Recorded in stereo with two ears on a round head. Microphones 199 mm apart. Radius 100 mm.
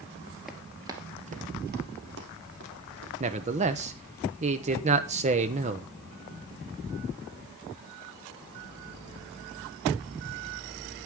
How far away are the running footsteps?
About 1.8 m.